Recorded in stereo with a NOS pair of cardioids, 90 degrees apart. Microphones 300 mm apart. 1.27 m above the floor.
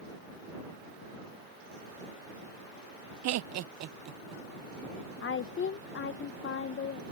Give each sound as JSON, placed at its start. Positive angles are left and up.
{"t": 3.2, "sound": "laughter", "azimuth_deg": -60}
{"t": 5.2, "sound": "a woman speaking", "azimuth_deg": 40}